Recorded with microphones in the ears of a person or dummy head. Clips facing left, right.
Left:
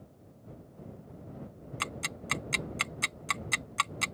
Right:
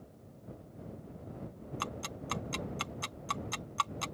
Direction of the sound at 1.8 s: 30° left (ahead or behind).